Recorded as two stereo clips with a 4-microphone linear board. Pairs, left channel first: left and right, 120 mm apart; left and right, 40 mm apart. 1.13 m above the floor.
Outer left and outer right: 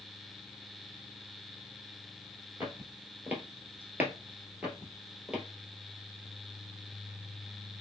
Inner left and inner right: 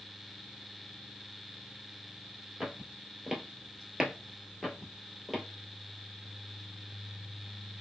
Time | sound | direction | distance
2.6 | footsteps | 15° right (ahead or behind) | 1.4 m